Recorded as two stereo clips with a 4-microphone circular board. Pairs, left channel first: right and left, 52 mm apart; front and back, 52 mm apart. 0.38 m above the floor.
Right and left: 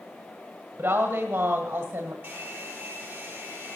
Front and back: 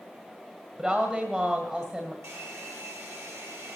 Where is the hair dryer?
150° left, 5 m.